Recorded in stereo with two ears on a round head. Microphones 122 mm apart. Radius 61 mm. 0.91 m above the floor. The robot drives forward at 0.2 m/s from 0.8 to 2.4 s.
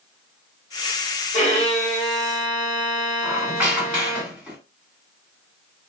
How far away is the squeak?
About 1.7 m.